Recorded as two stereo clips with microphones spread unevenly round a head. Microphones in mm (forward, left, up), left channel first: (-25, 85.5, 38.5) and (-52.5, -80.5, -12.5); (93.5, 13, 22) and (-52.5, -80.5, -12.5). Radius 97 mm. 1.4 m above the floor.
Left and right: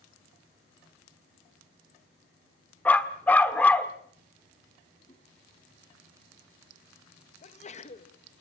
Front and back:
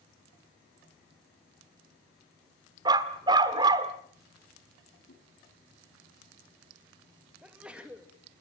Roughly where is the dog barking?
Behind left.